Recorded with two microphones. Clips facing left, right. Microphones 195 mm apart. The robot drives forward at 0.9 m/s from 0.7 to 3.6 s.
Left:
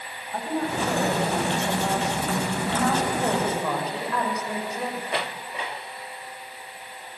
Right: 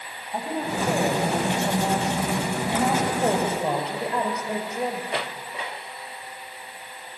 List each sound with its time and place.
0.3 s a woman speaking: 15° right (ahead or behind), 9 m; by 5.2 s 25° right (ahead or behind), 6.5 m